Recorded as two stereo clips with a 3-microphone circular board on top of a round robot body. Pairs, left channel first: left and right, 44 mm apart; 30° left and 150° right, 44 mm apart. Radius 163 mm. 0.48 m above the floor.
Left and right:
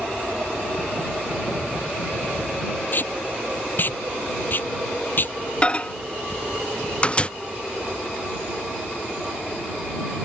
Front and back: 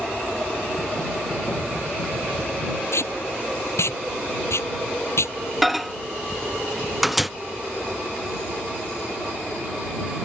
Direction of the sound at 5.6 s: 120° left.